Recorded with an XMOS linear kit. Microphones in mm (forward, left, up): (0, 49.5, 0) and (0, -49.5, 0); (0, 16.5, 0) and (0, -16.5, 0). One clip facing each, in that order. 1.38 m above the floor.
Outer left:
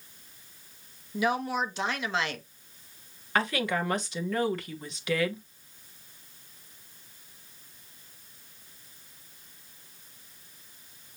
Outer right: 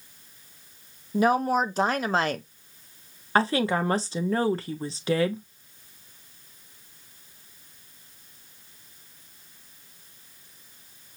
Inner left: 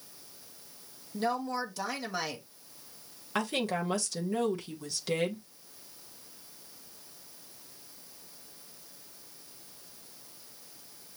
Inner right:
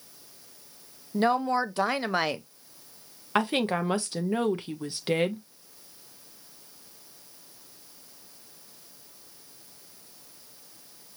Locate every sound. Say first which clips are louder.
1.1 s a woman speaking: outer right 6 dB, inner right 7 dB; 45° right (ahead or behind), 0.7 m
3.4 s a woman speaking: outer right 5 dB, inner right 5 dB; 35° right (ahead or behind), 0.8 m